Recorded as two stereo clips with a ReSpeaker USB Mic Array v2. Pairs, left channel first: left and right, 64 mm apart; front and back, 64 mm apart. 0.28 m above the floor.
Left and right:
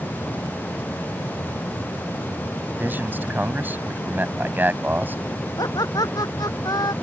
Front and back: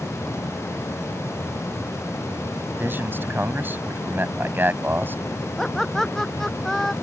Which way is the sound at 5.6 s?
85° left.